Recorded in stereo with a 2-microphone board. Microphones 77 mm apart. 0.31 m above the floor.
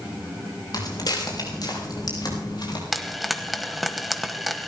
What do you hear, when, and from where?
0.7 s footsteps: 60° left (ahead or behind), 5.5 m; by 2.8 s 65° left (ahead or behind), 7 m
2.9 s frying: centre (ahead or behind), 1.2 m